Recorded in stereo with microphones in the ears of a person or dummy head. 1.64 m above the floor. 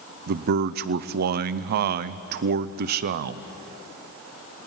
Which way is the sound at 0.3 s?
55° right (ahead or behind).